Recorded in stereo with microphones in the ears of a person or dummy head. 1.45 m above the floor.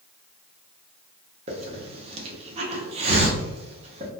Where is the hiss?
40° right (ahead or behind), 0.7 m.